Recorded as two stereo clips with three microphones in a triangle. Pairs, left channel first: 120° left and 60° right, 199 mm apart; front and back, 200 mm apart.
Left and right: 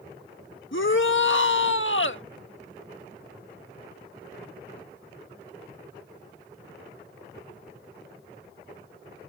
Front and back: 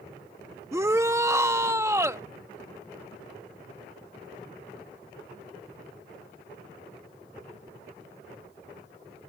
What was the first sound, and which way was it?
A shout, 105° left.